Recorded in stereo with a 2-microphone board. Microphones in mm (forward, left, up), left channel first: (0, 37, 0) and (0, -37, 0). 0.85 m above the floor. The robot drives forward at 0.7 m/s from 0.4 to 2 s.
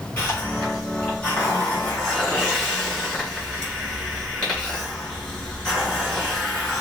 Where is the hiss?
35° left (ahead or behind), 2.5 m; by 6.8 s 25° left (ahead or behind), 3.5 m.